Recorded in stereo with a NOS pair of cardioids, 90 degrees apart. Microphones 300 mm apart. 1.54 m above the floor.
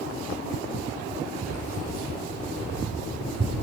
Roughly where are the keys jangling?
Ahead right.